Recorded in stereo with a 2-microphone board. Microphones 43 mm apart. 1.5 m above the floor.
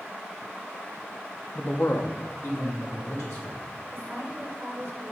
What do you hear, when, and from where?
1.6 s a man speaking: 20° left (ahead or behind), 0.5 m; by 3.6 s 75° left (ahead or behind), 2.5 m
3.9 s a woman speaking: 50° right (ahead or behind), 1.6 m